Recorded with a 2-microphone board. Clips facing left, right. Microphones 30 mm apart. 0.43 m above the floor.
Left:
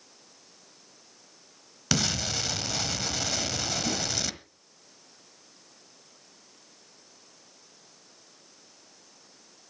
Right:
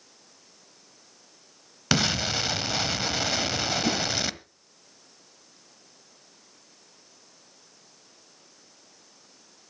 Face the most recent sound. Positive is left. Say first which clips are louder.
# right 5 dB
turn(degrees=-60)  # may be behind; listen again after turning